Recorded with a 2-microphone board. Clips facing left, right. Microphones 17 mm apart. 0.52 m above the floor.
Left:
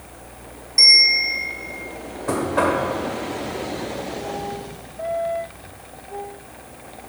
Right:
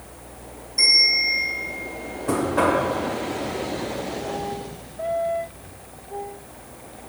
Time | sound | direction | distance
0.8 | a bell | 65° left (ahead or behind) | 2 m
2.3 | knocking | 30° left (ahead or behind) | 1.5 m